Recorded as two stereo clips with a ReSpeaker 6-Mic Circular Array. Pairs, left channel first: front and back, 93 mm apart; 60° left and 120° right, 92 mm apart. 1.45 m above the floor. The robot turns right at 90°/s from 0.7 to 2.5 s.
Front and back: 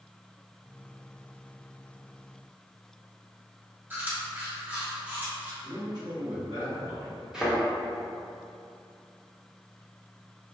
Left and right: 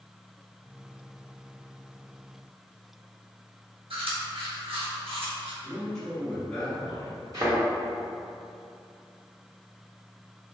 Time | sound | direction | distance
3.9 | chewing | 110° right | 0.9 m
5.6 | a man speaking | 140° left | 1.5 m
7.3 | a thud | 100° right | 1.3 m